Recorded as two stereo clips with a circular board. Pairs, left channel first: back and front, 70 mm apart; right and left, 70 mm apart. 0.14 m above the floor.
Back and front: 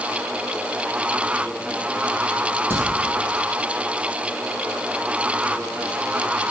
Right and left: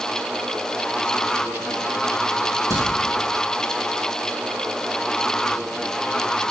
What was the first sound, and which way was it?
A crack, 55° left.